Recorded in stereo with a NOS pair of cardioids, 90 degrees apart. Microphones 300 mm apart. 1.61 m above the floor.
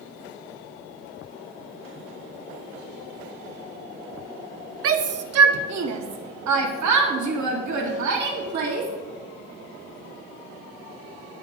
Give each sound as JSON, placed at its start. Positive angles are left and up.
{"t": 4.8, "sound": "a shout", "azimuth_deg": -50, "distance_m": 1.2}